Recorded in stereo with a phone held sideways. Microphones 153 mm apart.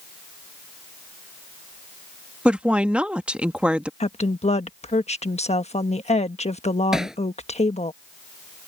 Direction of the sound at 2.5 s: 5° right (ahead or behind).